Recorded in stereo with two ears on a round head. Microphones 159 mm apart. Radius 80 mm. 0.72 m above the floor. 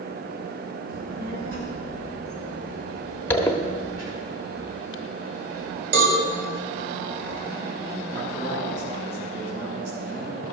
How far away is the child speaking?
About 5.5 m.